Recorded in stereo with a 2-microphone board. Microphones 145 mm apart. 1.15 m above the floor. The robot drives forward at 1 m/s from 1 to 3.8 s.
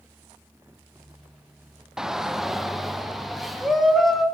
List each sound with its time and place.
2.0 s a shout: 5° right (ahead or behind), 0.7 m; by 4.2 s centre (ahead or behind), 2.5 m